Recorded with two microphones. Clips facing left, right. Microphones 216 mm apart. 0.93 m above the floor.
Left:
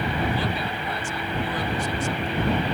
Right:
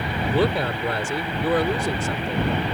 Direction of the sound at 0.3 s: 70° right (ahead or behind).